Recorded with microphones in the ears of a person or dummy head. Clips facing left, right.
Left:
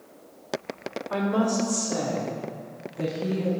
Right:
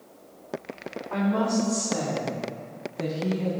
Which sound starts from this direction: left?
A woman speaking, at 1.1 s.